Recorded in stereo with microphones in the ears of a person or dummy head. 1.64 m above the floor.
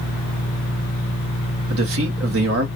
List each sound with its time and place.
1.7 s a man speaking: 65° right (ahead or behind), 1.0 m